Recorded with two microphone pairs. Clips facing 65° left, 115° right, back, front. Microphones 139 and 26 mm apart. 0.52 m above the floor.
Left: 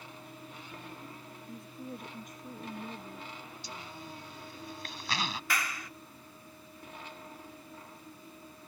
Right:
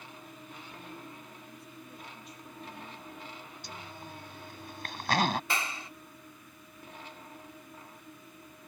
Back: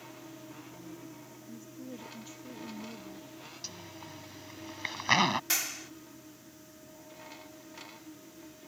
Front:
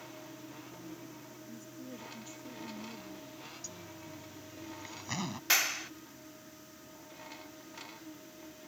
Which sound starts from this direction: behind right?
A zipper, at 3.6 s.